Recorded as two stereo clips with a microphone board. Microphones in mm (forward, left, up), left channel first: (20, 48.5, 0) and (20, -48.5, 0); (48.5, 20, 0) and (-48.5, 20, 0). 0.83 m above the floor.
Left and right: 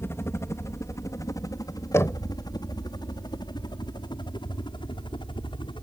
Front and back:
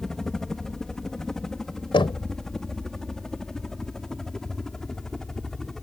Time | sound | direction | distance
0.0 | a helicopter | 75° left | ?
1.9 | knocking | 30° left | ?